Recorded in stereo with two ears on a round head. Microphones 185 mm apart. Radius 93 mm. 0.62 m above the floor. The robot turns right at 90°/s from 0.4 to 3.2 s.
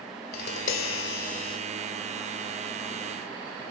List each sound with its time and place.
0.3 s tapping: 50° left, 3 m; by 1.6 s 160° left, 3 m